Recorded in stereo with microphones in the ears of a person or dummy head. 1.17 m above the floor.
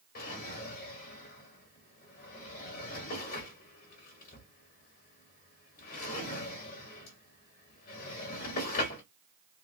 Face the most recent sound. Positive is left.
turn(degrees=45)  # may be behind; listen again after turning